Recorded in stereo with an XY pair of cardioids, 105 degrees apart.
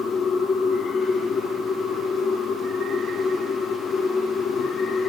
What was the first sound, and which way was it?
A machine running, 55° left.